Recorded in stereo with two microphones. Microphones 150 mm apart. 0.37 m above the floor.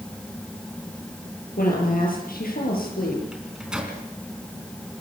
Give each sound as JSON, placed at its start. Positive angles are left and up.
{"t": 1.6, "sound": "a woman speaking", "side_deg": 75, "distance_m": 9.0}
{"t": 3.3, "sound": "a microwave", "side_deg": -5, "distance_m": 3.5}